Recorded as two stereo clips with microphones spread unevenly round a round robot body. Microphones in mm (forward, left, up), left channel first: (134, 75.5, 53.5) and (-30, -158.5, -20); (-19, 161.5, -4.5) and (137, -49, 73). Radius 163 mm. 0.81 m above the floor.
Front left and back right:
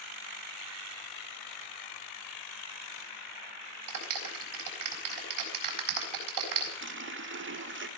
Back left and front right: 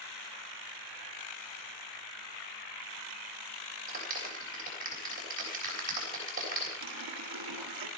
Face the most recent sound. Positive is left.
turn(degrees=-80)